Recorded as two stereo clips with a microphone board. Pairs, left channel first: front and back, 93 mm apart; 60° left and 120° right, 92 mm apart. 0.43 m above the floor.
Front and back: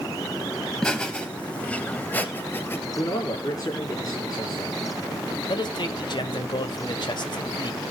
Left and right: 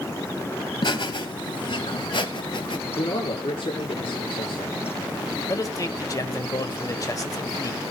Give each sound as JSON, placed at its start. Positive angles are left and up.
{"t": 0.8, "sound": "laughter", "azimuth_deg": 80, "distance_m": 3.0}
{"t": 3.0, "sound": "a man speaking", "azimuth_deg": 50, "distance_m": 4.5}
{"t": 5.5, "sound": "a man speaking", "azimuth_deg": 15, "distance_m": 1.7}